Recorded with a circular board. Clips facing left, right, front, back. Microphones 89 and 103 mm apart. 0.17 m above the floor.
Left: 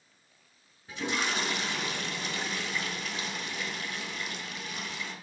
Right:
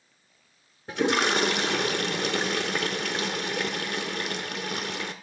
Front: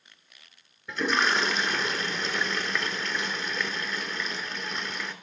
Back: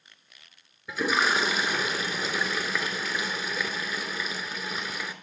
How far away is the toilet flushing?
About 0.7 m.